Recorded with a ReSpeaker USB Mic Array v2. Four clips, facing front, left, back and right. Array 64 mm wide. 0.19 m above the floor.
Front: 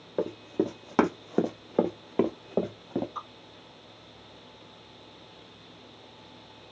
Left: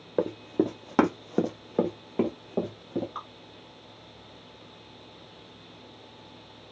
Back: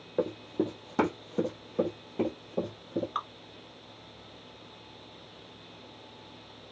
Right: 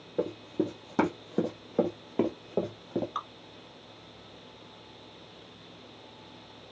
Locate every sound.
0.2 s running footsteps: 80° left, 0.8 m; by 3.0 s 15° right, 1.2 m
3.1 s dripping: 160° right, 0.7 m